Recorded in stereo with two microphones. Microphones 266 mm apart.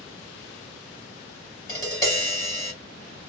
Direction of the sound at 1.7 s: 15° left (ahead or behind).